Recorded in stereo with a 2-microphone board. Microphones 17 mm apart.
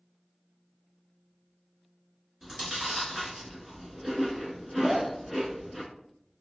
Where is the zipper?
45° right (ahead or behind), 0.5 m.